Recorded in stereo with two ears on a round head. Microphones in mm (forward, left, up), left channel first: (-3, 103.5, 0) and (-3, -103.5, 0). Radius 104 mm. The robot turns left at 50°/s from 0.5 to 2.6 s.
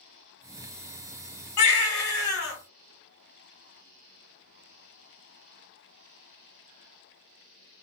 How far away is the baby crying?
About 1.4 m.